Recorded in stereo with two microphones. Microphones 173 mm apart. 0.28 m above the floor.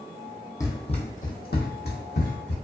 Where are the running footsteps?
20° left (ahead or behind), 0.6 m; by 2.5 s 80° left, 1.3 m.